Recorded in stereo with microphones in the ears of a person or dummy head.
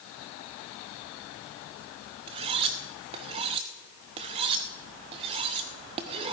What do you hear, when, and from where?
2.3 s cutlery clinking: 30° right (ahead or behind), 0.6 m